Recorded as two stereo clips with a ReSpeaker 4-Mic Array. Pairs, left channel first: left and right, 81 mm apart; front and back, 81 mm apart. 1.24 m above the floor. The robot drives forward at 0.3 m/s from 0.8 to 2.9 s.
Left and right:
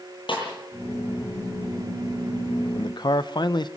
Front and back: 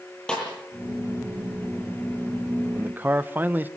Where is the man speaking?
110° left, 0.9 m; by 3.7 s 115° left, 0.9 m.